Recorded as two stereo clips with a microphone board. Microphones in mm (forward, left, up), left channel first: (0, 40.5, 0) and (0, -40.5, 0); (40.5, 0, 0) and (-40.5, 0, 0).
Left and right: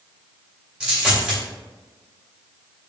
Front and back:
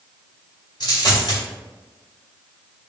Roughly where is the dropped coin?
Ahead.